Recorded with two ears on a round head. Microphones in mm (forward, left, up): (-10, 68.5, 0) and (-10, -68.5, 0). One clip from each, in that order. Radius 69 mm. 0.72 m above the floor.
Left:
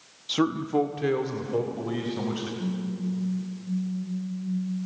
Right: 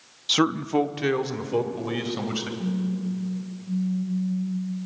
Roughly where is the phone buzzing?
Right.